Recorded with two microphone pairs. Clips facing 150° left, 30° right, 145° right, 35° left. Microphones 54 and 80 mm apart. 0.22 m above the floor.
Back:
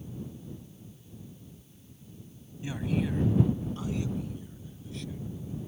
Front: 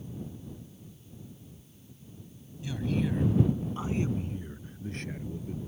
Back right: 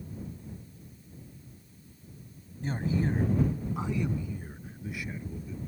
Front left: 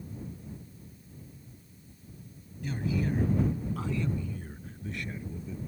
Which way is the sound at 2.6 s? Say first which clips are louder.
Even, back right 1 dB; 170° right.